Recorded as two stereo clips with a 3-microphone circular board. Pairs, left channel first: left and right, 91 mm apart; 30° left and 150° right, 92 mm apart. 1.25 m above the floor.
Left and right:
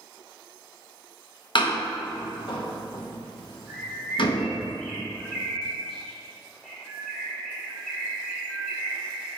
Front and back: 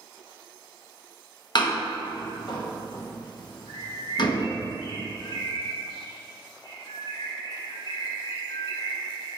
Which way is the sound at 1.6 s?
65° left.